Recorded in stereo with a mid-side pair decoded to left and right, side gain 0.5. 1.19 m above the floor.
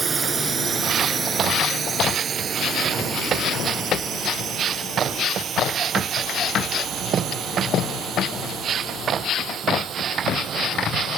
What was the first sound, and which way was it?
A drone, 40° right.